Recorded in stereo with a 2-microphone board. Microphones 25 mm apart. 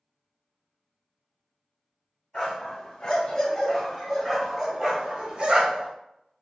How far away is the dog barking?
About 1.9 m.